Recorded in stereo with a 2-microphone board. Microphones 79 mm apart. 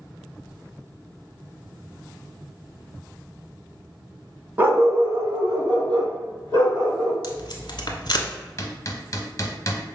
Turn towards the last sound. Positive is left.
turn(degrees=40)  # may be behind; listen again after turning